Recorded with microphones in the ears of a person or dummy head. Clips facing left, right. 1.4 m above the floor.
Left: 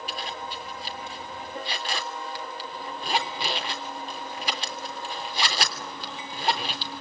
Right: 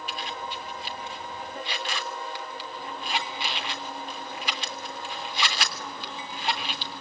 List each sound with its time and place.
0.1 s a zipper: 35° left (ahead or behind), 3.5 m